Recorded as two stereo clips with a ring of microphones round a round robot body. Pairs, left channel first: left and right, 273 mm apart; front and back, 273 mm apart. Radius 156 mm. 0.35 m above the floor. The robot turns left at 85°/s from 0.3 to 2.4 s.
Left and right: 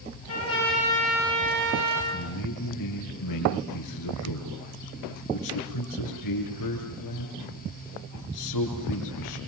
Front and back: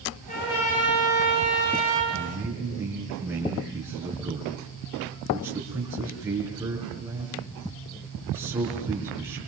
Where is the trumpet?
65° left, 9 m; by 2.0 s 80° right, 9 m.